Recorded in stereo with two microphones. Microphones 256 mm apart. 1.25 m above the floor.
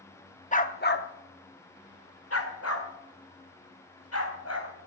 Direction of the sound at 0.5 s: 30° left (ahead or behind).